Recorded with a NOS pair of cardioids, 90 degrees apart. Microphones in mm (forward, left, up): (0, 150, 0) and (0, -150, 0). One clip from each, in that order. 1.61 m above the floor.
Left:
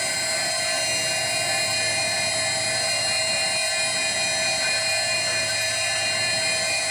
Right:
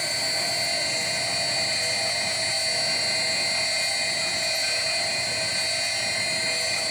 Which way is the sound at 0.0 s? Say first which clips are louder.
Left 1 dB; 40° left.